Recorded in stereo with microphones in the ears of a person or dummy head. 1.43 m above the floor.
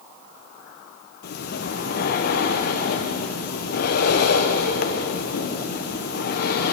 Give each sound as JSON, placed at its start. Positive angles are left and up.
{"t": 1.2, "sound": "breathing", "side_deg": 55, "distance_m": 0.9}